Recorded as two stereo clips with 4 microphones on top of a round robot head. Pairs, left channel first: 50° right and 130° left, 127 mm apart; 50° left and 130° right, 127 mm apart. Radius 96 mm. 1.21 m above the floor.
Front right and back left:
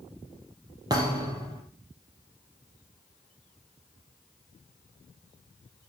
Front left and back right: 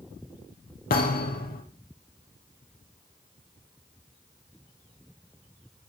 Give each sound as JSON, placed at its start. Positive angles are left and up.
{"t": 0.9, "sound": "a thud", "azimuth_deg": 65, "distance_m": 4.5}